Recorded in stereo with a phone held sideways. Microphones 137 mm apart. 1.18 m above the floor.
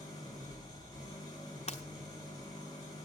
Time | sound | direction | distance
0.0 | an engine running | 30° left (ahead or behind) | 5.5 m
1.7 | breaking glass | 50° left (ahead or behind) | 1.2 m